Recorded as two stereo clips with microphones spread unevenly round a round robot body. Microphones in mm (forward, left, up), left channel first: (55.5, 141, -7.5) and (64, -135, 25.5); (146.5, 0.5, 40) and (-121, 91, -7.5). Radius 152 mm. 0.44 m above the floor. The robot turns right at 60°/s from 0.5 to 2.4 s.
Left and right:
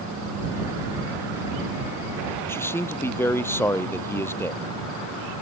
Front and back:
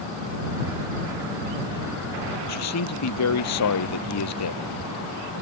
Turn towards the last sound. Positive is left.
turn(degrees=10)